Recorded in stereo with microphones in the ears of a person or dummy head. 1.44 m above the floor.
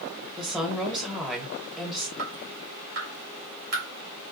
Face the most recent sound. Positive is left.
turn(degrees=-50)  # may be behind; listen again after turning